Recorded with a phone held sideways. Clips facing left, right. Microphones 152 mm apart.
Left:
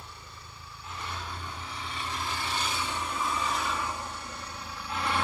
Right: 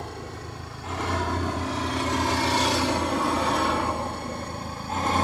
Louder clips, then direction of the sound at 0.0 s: Right 13 dB; 80° right.